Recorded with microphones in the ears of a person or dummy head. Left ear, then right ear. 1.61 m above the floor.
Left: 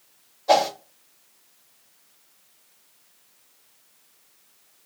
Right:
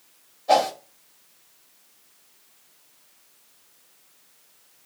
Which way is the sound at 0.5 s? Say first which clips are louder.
Even; 25° left (ahead or behind).